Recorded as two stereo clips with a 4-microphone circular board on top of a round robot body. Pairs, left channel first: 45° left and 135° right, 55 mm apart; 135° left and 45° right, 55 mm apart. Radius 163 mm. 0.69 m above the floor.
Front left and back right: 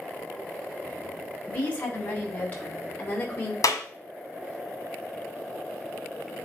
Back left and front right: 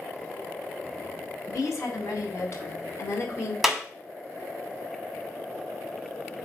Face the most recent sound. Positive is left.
turn(degrees=45)